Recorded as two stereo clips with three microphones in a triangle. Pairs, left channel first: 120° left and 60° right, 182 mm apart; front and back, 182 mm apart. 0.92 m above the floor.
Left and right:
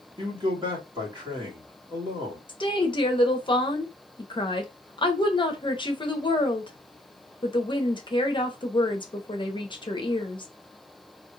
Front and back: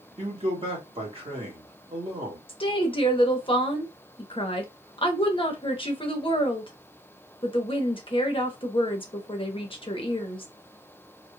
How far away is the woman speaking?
About 0.8 m.